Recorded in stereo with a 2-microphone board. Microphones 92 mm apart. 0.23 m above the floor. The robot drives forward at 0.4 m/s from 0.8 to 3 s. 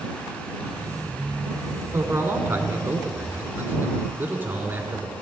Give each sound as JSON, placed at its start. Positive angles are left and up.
{"t": 1.9, "sound": "a man speaking", "side_deg": -30, "distance_m": 1.6}